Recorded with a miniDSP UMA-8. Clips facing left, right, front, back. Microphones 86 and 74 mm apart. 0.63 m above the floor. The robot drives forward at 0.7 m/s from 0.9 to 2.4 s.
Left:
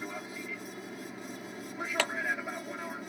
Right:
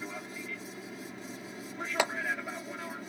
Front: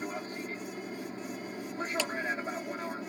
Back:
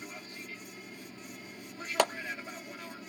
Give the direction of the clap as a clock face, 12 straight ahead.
5 o'clock.